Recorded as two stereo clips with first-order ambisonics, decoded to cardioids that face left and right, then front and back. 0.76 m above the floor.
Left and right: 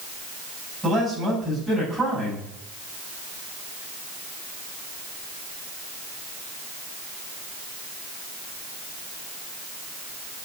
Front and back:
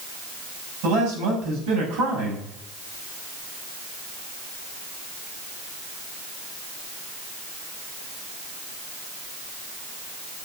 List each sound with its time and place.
0.8 s a man speaking: straight behind, 6 m